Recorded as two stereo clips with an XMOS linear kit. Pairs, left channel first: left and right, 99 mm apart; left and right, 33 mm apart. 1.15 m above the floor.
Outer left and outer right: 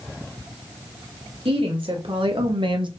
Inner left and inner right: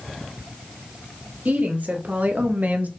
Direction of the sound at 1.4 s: 65° right (ahead or behind).